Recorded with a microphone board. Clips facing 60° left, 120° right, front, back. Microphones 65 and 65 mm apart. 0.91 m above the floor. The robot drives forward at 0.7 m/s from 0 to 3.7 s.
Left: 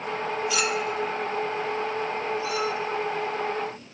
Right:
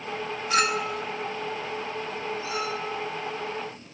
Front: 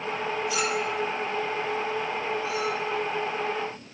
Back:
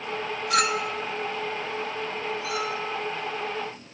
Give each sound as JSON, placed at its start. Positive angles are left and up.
{"t": 0.5, "sound": "a clink", "azimuth_deg": -160, "distance_m": 0.6}